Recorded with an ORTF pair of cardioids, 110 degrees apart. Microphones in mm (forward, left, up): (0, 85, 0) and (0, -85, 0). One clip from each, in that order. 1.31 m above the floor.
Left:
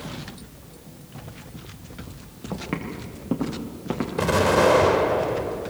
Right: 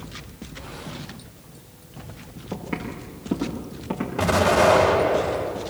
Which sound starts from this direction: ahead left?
Footsteps, at 2.5 s.